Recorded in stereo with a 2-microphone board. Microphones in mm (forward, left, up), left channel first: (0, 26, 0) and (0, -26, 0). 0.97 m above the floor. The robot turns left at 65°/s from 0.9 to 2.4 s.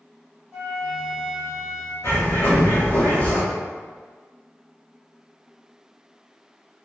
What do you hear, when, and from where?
0.5 s a flute: 165° right, 1.4 m; by 1.9 s 130° left, 1.4 m
2.0 s a bird: 80° left, 1.9 m; by 3.4 s 65° left (ahead or behind), 1.9 m